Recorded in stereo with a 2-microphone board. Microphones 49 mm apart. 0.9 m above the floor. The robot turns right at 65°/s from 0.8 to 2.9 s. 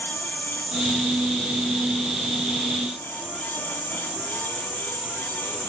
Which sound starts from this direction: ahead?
An insect, at 0.0 s.